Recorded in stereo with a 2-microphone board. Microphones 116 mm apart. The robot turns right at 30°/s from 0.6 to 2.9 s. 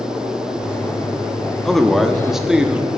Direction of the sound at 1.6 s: 5° left (ahead or behind).